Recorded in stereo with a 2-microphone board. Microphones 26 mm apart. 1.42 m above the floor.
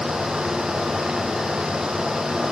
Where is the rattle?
I don't hear a rattle.